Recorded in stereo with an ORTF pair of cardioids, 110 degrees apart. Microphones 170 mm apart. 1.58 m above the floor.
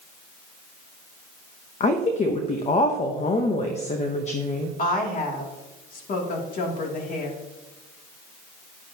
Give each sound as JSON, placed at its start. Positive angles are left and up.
{"t": 1.8, "sound": "a woman speaking", "azimuth_deg": 45, "distance_m": 1.0}
{"t": 4.8, "sound": "a woman speaking", "azimuth_deg": 55, "distance_m": 2.5}